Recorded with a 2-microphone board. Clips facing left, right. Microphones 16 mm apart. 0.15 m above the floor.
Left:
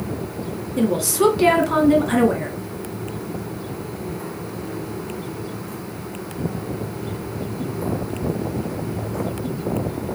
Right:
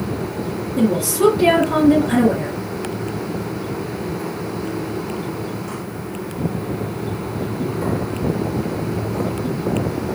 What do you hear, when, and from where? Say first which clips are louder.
0.8 s a woman speaking: right 2 dB; 25° left (ahead or behind), 1.7 m